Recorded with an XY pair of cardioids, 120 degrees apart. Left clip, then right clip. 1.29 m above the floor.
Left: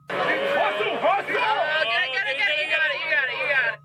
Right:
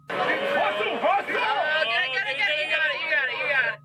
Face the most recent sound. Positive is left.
turn(degrees=5)